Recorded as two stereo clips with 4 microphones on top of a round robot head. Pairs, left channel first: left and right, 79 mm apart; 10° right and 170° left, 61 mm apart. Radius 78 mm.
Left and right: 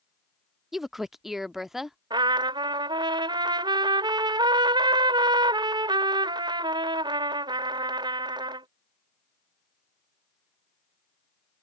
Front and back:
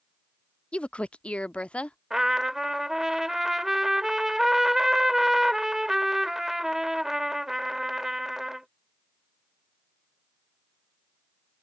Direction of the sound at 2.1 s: 105° right.